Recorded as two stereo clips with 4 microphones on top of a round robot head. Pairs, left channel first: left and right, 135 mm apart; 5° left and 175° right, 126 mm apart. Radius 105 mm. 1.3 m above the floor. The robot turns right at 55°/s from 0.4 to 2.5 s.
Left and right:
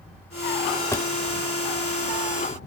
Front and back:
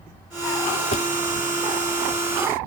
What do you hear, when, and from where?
0.9 s a drawer: 20° left; by 1.1 s 25° left